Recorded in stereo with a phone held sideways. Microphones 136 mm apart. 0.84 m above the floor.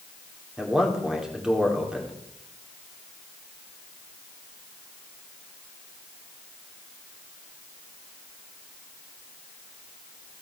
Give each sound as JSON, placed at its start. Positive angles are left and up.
{"t": 0.6, "sound": "a man speaking", "side_deg": -5, "distance_m": 2.5}